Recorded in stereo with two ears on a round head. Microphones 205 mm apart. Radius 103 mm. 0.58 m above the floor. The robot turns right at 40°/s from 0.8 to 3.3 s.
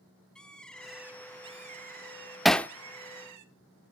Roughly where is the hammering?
Centre.